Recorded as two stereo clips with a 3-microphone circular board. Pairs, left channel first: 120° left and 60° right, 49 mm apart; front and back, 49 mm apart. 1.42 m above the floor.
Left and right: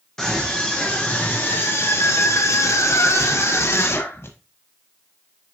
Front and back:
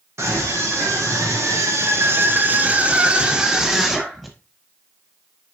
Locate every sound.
0.2 s a scream: 160° right, 1.7 m; by 4.3 s 90° left, 2.5 m